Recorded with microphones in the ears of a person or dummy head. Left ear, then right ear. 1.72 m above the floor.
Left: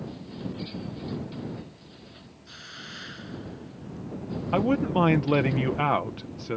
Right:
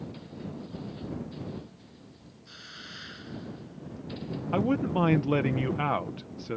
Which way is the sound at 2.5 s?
5° left (ahead or behind).